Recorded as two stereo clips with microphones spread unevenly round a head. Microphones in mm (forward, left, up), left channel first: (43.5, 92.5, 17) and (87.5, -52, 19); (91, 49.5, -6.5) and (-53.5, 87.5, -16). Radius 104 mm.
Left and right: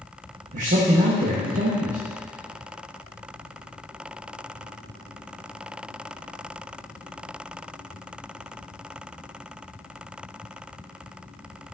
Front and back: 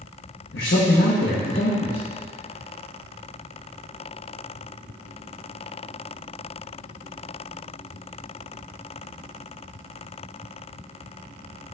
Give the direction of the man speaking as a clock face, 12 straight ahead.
1 o'clock.